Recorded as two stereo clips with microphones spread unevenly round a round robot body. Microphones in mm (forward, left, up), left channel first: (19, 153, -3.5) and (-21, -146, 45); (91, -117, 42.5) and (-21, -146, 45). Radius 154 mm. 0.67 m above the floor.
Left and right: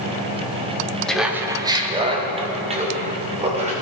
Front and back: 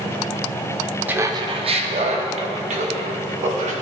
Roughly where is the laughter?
Behind left.